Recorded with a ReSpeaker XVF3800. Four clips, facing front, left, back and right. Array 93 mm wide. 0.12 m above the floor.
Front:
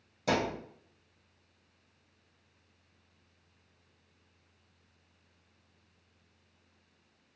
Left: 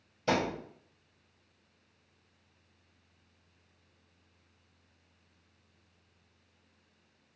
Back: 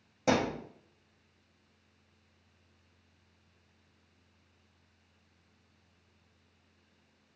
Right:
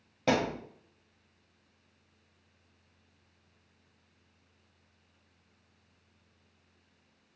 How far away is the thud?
About 1.5 m.